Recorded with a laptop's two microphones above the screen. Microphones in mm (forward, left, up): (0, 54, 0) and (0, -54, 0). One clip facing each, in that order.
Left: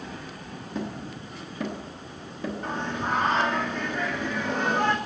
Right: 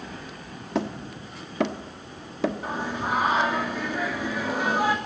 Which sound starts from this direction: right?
Hammering, at 0.8 s.